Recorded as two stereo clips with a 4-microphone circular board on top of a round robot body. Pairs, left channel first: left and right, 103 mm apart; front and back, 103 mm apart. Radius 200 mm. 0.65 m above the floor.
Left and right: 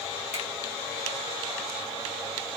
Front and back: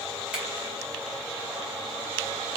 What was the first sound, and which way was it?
A finger snap, 100° left.